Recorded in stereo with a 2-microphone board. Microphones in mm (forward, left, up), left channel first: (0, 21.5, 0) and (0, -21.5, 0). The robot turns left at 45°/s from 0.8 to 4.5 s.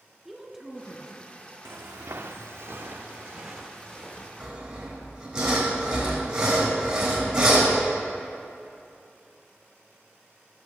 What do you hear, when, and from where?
0.2 s a woman speaking: 10° right (ahead or behind), 1.9 m; by 1.2 s 30° right (ahead or behind), 1.9 m
1.6 s footsteps: 65° right (ahead or behind), 0.7 m; by 4.3 s 25° left (ahead or behind), 2.5 m
4.4 s sawing: 5° right (ahead or behind), 4 m; by 7.7 s 10° right (ahead or behind), 4 m